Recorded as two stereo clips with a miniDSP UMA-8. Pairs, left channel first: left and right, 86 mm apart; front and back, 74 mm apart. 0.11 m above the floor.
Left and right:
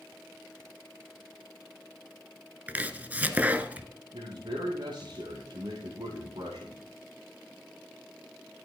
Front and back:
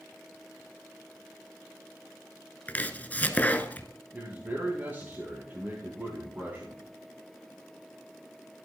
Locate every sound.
2.7 s chopping: 40° right, 1.1 m
4.1 s a man speaking: 115° right, 7.5 m